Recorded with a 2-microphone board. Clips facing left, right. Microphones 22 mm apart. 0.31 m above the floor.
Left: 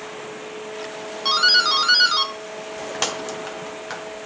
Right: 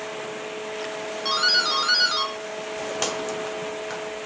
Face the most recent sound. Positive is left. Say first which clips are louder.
# left 5 dB
turn(degrees=15)  # may be behind; listen again after turning